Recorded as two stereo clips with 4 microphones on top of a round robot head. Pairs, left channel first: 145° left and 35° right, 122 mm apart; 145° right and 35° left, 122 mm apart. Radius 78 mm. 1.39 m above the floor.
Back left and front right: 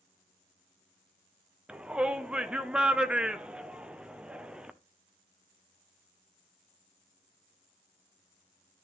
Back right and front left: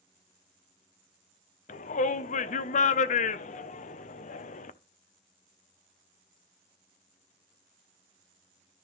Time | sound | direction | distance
1.7 | a shout | 115° right | 0.7 m